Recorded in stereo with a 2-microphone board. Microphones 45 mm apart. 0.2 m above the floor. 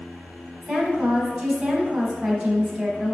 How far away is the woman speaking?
About 1.0 m.